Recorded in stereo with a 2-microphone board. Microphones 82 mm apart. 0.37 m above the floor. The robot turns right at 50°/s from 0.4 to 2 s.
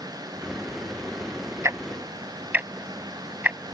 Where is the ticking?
40° right (ahead or behind); by 3.6 s 20° right (ahead or behind).